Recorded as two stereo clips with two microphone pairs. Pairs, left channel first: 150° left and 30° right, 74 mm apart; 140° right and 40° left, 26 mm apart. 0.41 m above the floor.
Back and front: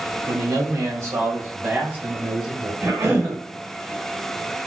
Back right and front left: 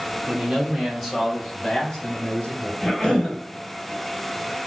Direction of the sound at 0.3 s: 25° right.